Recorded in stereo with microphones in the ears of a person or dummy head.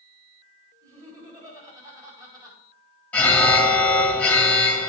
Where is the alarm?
10° left (ahead or behind), 1.3 m.